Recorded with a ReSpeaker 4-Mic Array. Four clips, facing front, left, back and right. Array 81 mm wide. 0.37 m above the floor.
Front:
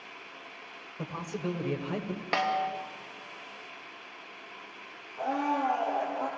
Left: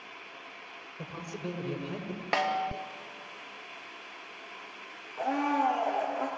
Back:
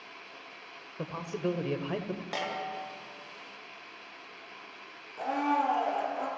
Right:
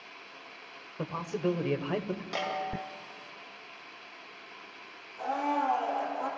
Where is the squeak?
I don't hear a squeak.